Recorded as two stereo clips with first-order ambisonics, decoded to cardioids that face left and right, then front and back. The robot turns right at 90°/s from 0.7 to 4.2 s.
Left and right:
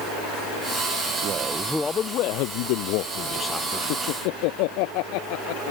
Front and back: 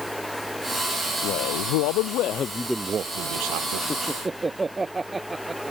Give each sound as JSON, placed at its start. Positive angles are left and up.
{"t": 1.2, "sound": "a man speaking", "azimuth_deg": -40}
{"t": 3.9, "sound": "laughter", "azimuth_deg": 75}